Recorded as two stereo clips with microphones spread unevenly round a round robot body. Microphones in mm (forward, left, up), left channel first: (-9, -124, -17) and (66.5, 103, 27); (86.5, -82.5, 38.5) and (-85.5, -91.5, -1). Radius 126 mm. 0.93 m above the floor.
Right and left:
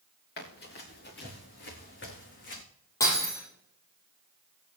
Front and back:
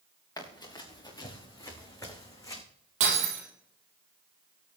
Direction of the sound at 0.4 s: 65° right.